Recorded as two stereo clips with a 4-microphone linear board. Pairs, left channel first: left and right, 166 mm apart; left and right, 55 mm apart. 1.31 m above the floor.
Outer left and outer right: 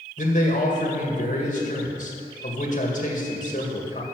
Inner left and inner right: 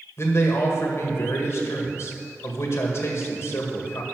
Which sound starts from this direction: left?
A man speaking, at 0.2 s.